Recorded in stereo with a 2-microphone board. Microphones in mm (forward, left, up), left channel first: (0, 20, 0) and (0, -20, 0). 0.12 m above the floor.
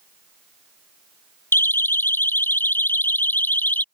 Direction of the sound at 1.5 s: 70° left (ahead or behind).